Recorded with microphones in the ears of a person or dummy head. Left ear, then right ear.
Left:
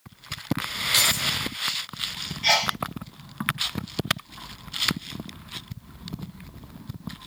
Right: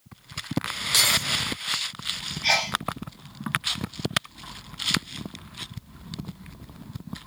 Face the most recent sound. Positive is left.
turn(degrees=15)  # may be behind; listen again after turning